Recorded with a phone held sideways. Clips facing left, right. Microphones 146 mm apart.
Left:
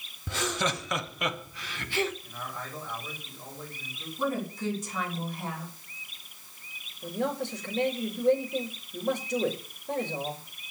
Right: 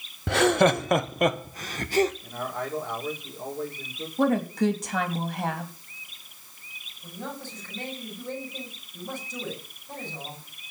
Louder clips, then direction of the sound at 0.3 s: Right 11 dB; 75° right (ahead or behind).